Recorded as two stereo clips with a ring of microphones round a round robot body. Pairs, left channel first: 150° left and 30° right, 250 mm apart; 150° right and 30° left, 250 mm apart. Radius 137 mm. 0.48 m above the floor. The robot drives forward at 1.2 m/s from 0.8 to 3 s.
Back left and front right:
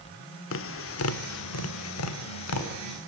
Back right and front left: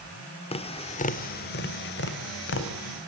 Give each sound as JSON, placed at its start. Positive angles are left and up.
{"t": 0.5, "sound": "tapping", "azimuth_deg": 150, "distance_m": 1.3}